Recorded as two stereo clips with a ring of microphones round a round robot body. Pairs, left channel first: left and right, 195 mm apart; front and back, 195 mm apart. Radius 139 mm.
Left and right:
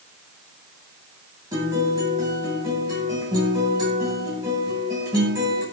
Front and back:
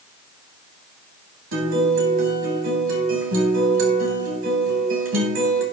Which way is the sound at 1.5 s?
165° right.